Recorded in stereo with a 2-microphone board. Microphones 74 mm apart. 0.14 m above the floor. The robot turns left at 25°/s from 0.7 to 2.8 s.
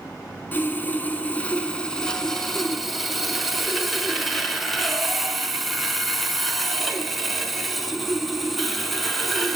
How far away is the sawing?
About 0.7 m.